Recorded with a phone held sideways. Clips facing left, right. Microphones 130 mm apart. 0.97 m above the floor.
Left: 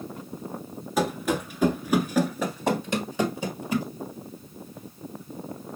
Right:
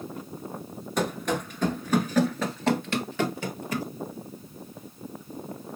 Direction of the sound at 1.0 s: 5° left (ahead or behind).